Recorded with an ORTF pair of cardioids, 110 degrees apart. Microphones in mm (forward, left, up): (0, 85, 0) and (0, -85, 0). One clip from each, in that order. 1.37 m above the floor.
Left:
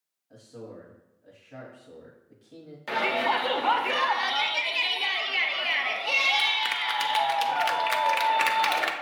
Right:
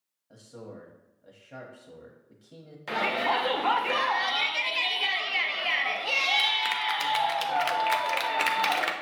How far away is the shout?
About 0.6 m.